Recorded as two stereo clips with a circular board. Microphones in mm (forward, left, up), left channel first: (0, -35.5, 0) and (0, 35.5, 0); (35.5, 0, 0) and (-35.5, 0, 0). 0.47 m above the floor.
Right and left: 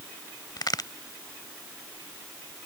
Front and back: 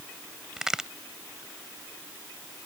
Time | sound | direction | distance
0.6 | a crack | 95° right | ?